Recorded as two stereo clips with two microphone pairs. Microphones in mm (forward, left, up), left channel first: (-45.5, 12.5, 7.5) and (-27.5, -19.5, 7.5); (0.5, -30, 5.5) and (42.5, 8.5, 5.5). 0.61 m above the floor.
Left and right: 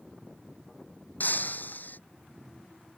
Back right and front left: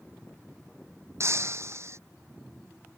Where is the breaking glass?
80° left.